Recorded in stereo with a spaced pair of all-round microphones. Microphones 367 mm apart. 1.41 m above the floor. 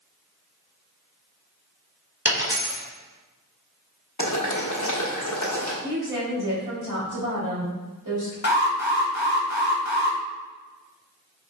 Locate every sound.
2.2 s a dropped coin: 50° right (ahead or behind), 2.0 m
4.2 s boiling: 55° left (ahead or behind), 1.1 m
5.8 s a woman speaking: 60° right (ahead or behind), 2 m
8.4 s an alarm: 50° left (ahead or behind), 1.0 m